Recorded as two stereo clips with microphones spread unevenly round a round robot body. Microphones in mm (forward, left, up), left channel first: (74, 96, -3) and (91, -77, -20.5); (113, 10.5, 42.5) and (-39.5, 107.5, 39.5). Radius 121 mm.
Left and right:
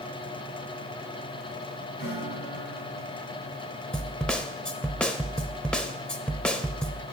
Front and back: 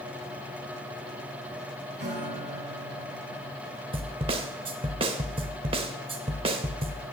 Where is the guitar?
125° left, 5.5 m.